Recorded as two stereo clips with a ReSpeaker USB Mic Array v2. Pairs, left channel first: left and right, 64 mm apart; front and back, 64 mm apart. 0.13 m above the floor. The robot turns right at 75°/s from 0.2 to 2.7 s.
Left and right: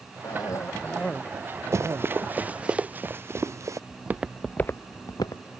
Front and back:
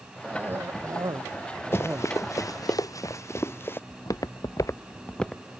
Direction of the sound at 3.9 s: 35° right.